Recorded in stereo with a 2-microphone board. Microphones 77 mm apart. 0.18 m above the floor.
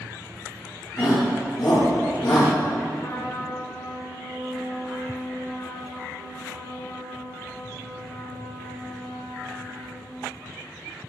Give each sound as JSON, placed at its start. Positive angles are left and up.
{"t": 1.0, "sound": "a shout", "side_deg": 65, "distance_m": 4.0}
{"t": 3.0, "sound": "a trumpet", "side_deg": 50, "distance_m": 4.0}